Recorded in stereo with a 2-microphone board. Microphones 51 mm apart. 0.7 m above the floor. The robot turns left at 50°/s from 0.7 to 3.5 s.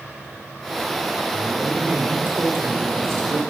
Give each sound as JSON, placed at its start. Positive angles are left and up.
{"t": 1.3, "sound": "a woman speaking", "azimuth_deg": 0, "distance_m": 2.5}